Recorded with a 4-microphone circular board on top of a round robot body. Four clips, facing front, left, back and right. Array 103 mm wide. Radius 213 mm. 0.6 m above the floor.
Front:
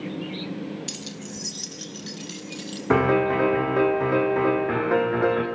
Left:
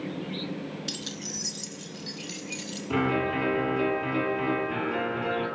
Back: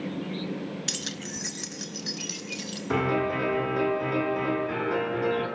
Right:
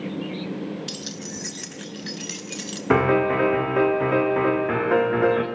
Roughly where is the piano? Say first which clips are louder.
Right 8 dB, front 6 dB; ahead right.